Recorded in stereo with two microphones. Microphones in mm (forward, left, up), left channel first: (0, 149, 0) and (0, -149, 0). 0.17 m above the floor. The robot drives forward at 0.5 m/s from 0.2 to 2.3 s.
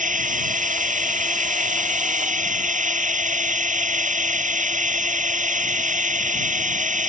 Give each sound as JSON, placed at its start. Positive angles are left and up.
{"t": 0.0, "sound": "a drone", "side_deg": -25}